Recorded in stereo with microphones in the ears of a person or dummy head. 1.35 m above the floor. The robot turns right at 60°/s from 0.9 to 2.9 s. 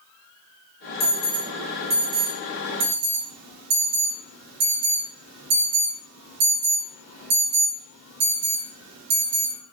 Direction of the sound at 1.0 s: 30° left (ahead or behind).